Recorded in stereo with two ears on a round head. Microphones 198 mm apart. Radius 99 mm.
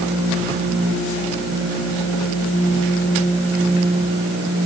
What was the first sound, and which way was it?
Only background noise.